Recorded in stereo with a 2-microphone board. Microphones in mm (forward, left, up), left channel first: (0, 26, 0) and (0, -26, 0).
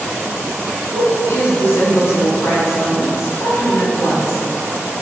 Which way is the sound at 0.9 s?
55° left (ahead or behind).